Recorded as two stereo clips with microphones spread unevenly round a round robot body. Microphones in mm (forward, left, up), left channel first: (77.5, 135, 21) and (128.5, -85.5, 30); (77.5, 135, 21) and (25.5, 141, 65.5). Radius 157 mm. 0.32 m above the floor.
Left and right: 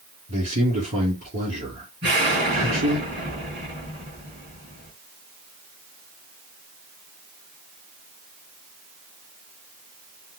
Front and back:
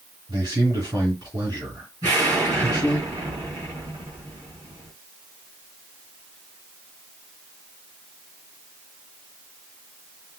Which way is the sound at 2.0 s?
150° right.